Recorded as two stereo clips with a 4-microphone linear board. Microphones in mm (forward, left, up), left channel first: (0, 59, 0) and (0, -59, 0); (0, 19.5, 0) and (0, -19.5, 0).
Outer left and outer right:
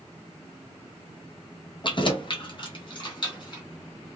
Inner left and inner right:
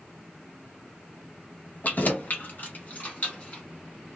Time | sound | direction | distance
1.8 | keys jangling | 45° left (ahead or behind) | 0.6 m